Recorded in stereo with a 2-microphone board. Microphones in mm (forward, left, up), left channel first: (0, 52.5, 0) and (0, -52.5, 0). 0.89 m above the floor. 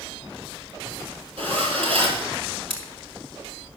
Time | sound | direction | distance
1.4 | a zipper | 60° right (ahead or behind) | 4 m
2.7 | scissors | 60° right (ahead or behind) | 4 m